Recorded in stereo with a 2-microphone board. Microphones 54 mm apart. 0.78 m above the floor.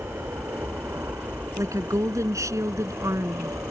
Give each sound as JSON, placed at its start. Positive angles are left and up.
{"t": 0.0, "sound": "an aircraft", "side_deg": -60}
{"t": 1.6, "sound": "a woman speaking", "side_deg": -85}